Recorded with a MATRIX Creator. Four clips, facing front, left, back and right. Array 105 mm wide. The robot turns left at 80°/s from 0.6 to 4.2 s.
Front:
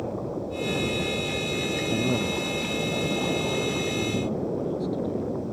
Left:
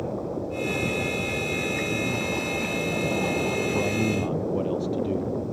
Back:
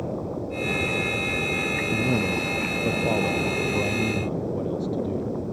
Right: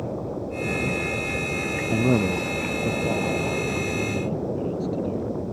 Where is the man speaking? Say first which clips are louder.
Right 6 dB, back 2 dB; 75° right; by 5.3 s 100° left.